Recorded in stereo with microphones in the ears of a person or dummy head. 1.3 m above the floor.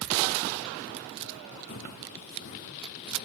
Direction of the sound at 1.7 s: 55° left (ahead or behind).